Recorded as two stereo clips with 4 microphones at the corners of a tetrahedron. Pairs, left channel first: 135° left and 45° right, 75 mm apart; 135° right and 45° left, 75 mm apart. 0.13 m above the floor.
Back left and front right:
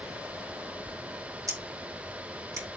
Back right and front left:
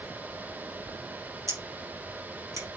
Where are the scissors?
Straight ahead, 4.5 m.